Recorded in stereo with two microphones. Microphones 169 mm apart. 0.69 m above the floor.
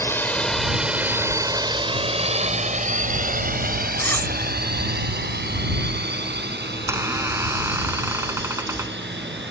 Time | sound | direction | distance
0.0 | a drone | 15° left (ahead or behind) | ?
4.0 | cutlery clinking | 10° left (ahead or behind) | ?
6.7 | a squeak | 15° right (ahead or behind) | ?